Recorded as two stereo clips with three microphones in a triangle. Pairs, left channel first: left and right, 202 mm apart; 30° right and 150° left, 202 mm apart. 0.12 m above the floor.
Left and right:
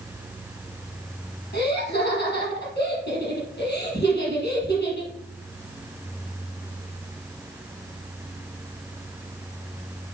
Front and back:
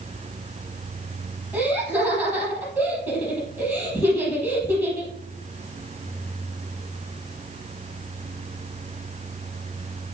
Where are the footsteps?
No footsteps in this recording.